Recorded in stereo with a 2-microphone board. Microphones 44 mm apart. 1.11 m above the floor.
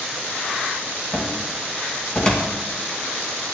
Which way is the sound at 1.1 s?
25° left (ahead or behind).